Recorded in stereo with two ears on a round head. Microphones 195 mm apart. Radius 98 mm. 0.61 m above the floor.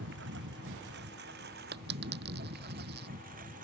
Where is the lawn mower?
55° right (ahead or behind); by 3.6 s 40° right (ahead or behind).